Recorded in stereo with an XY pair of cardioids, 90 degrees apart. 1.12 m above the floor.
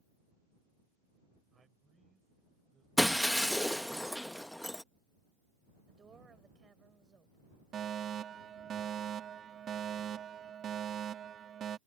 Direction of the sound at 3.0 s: 5° left.